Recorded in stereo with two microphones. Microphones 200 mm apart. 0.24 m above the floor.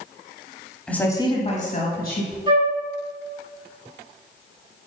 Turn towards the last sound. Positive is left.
turn(degrees=-25)  # may be behind; listen again after turning